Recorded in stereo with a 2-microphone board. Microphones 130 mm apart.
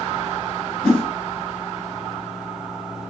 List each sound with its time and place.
0.8 s a whoosh: 5° left (ahead or behind), 2.0 m